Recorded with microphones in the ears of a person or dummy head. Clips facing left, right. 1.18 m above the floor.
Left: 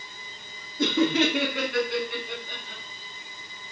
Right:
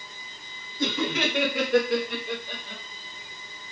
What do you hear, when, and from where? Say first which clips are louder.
0.8 s laughter: left 5 dB; 50° left (ahead or behind), 0.7 m; by 2.8 s 65° right (ahead or behind), 1.3 m